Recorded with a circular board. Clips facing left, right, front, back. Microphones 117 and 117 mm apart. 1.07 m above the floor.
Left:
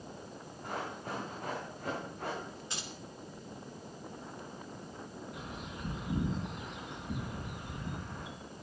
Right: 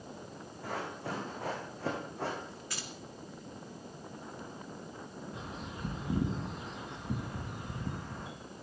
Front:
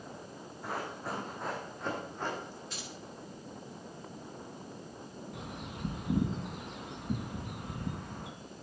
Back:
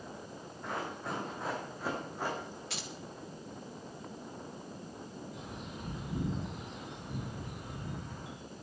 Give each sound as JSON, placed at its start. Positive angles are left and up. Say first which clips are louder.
{"t": 0.6, "sound": "running footsteps", "louder": "right 1 dB, even", "azimuth_deg": -85, "distance_m": 5.0}
{"t": 2.7, "sound": "keys jangling", "louder": "even, back 1 dB", "azimuth_deg": 160, "distance_m": 1.8}
{"t": 5.3, "sound": "a bird", "louder": "right 1 dB, front 1 dB", "azimuth_deg": -30, "distance_m": 3.5}